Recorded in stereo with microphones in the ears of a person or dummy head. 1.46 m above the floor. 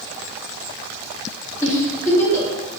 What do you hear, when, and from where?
1.6 s a giggle: 15° left (ahead or behind), 0.8 m